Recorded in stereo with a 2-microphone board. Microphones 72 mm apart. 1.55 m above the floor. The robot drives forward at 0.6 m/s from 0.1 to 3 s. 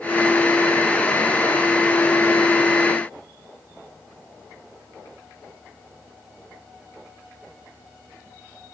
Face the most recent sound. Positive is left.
No sound to turn to.